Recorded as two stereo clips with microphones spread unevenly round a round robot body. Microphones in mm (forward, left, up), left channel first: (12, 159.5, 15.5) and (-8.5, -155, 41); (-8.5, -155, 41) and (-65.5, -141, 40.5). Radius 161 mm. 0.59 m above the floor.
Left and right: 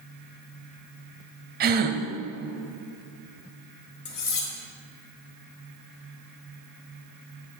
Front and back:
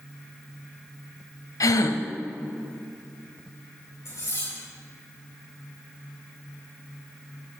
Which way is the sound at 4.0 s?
35° left.